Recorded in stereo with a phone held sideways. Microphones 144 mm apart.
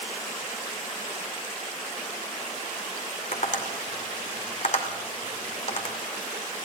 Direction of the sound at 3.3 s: 60° left (ahead or behind).